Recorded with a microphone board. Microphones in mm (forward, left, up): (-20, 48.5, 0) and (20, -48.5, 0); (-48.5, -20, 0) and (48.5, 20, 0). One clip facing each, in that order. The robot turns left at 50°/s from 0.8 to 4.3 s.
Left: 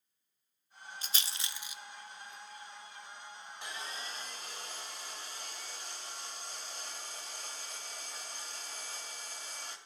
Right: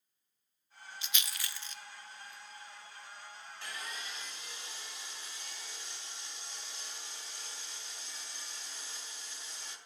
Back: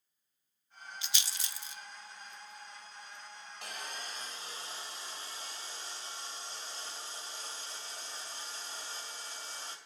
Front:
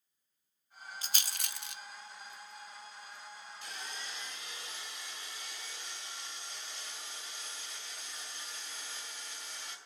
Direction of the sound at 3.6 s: Straight behind.